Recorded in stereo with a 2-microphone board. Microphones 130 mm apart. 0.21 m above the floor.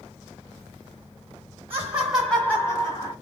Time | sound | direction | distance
1.7 | laughter | 15° right (ahead or behind) | 1.5 m